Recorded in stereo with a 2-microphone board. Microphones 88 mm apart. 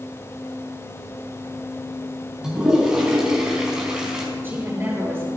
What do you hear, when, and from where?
2.4 s a toilet flushing: 10° right (ahead or behind), 4.5 m
4.3 s a woman speaking: 25° right (ahead or behind), 8 m